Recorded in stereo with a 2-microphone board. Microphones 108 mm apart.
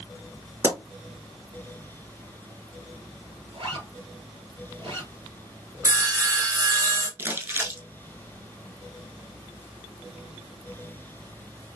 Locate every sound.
0.6 s a pop: 30° right (ahead or behind), 2.5 m
3.5 s a zipper: 55° right (ahead or behind), 2.5 m
5.8 s sawing: 30° right (ahead or behind), 1.7 m
7.2 s crumpling: 20° right (ahead or behind), 0.9 m